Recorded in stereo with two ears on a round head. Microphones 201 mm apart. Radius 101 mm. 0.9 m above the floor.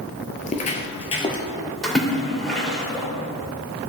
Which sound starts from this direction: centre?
A splash, at 1.8 s.